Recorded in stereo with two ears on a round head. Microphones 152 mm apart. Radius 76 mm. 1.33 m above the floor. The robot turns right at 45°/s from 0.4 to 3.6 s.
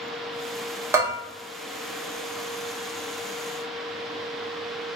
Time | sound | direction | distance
0.9 | a bell | 15° right (ahead or behind) | 0.9 m